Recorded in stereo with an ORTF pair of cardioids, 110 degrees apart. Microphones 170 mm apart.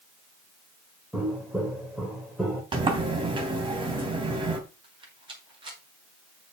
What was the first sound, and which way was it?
Footsteps, 5° right.